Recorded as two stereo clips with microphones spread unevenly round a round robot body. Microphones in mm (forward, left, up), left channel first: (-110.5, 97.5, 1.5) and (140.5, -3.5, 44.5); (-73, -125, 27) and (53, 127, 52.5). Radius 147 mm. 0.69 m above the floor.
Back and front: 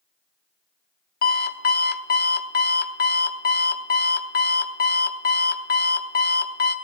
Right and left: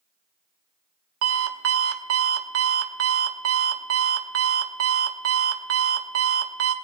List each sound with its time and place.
1.2 s an alarm clock: 105° left, 0.8 m